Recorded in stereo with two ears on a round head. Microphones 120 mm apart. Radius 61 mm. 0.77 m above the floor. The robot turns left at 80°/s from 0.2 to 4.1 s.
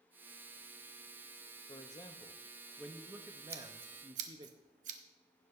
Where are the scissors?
15° right (ahead or behind), 0.9 m; by 5.0 s 55° right (ahead or behind), 0.9 m.